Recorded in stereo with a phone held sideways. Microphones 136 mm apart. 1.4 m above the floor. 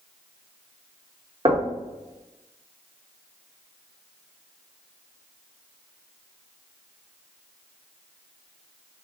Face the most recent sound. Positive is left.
turn(degrees=-40)  # may be behind; listen again after turning